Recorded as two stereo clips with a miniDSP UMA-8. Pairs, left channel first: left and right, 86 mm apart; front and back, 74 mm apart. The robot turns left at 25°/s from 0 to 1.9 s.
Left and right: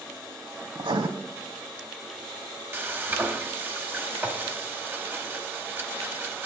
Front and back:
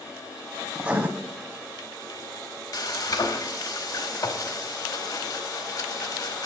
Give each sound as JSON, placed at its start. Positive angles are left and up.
{"t": 0.8, "sound": "writing", "azimuth_deg": -105, "distance_m": 0.7}
{"t": 2.7, "sound": "frying", "azimuth_deg": -30, "distance_m": 0.8}